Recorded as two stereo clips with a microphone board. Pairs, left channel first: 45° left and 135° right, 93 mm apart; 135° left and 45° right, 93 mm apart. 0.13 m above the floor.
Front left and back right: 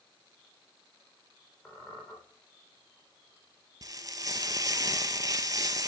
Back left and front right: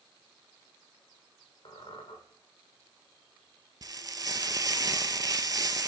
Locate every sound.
1.6 s a squeak: 110° left, 4 m
3.8 s frying: 90° right, 0.6 m